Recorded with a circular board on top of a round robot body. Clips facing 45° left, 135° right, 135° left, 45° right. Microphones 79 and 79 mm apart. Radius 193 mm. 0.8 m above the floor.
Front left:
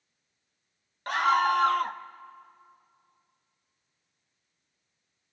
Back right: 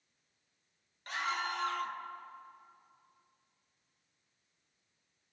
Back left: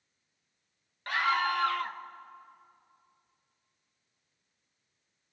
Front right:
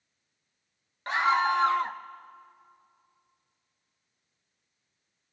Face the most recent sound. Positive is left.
turn(degrees=20)